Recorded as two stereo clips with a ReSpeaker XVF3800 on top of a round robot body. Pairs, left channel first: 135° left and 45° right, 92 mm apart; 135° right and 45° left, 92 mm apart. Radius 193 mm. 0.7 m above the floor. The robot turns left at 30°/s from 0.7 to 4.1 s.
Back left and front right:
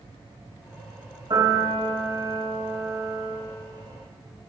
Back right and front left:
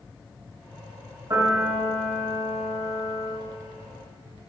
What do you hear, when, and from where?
1.3 s a piano: 10° right, 5 m; by 3.4 s 70° right, 5 m